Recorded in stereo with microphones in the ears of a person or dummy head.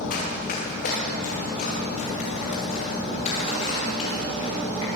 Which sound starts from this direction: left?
Running footsteps, at 0.1 s.